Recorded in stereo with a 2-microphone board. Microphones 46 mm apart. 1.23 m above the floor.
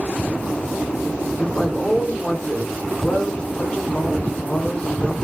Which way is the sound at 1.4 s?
20° left (ahead or behind).